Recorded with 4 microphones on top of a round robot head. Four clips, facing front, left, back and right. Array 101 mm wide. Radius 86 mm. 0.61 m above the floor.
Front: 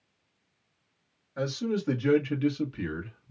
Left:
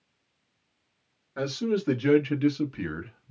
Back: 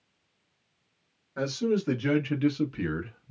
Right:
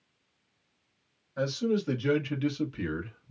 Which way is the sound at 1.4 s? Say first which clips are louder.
Left 1 dB, back 3 dB; 105° left.